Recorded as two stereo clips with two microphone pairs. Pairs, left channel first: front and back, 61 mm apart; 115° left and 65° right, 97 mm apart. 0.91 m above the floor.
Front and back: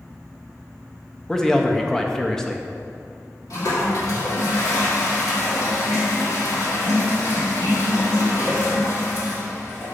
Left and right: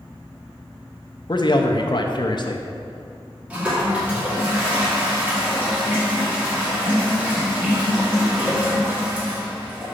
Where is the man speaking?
80° left, 0.5 m.